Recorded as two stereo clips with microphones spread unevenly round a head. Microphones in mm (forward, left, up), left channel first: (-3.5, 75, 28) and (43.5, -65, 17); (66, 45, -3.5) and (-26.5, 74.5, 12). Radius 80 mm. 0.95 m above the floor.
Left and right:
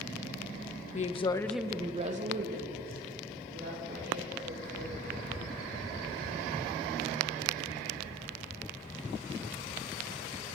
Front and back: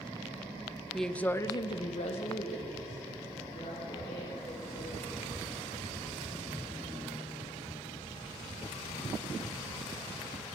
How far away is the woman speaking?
About 1.2 m.